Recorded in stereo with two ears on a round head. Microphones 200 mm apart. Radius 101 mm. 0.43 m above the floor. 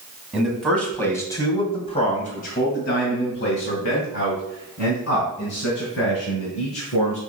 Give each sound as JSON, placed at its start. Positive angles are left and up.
{"t": 0.3, "sound": "a man speaking", "side_deg": 0, "distance_m": 2.5}